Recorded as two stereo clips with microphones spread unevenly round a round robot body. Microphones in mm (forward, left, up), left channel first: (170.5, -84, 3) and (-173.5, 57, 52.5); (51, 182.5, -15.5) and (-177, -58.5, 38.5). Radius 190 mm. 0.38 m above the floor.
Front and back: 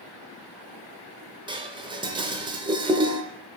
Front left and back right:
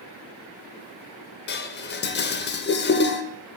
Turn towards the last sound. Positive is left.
turn(degrees=75)